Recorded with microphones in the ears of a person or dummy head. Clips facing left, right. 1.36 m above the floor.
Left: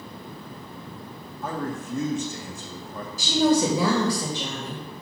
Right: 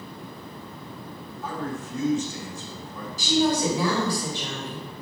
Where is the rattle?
I don't hear a rattle.